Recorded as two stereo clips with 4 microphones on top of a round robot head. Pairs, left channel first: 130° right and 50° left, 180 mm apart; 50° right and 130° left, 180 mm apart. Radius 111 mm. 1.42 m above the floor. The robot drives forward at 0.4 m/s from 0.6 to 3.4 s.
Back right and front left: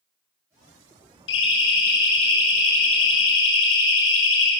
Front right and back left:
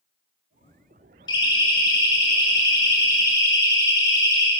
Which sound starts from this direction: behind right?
A siren, at 1.3 s.